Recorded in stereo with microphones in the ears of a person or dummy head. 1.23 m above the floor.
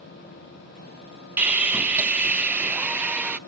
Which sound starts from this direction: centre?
Sawing, at 1.4 s.